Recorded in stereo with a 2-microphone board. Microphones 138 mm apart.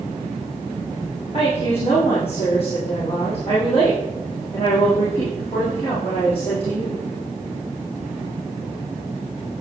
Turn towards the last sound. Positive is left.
turn(degrees=45)  # may be behind; listen again after turning